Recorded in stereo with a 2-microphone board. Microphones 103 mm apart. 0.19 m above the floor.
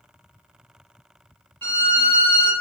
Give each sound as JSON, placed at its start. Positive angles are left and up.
{"t": 1.6, "sound": "a violin", "side_deg": 20, "distance_m": 1.2}